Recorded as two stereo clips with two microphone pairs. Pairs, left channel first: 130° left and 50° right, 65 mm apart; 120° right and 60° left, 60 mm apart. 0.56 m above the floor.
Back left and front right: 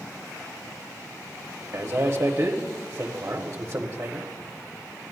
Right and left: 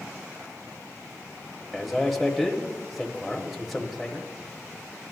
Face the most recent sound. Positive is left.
turn(degrees=-45)